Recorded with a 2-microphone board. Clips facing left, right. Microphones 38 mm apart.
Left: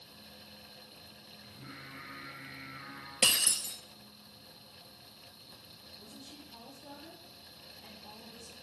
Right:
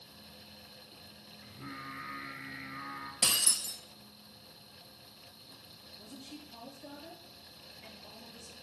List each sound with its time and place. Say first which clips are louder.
1.4 s singing: right 5 dB; 65° right (ahead or behind), 3.5 m
3.2 s breaking glass: left 4 dB; 45° left (ahead or behind), 1.4 m
6.0 s a woman speaking: right 4 dB; 70° right (ahead or behind), 6 m